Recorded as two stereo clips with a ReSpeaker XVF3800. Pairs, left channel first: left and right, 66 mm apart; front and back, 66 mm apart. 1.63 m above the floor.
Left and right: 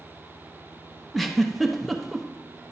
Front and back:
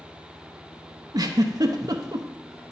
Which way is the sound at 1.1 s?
Straight behind.